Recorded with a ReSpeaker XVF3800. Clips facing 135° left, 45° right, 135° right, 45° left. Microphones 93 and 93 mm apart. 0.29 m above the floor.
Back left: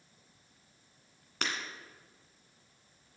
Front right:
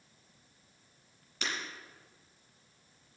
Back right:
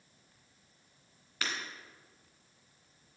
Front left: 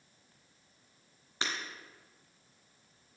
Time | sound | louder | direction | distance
1.4 | breaking glass | back left 2 dB, front left 1 dB | 110° left | 1.9 m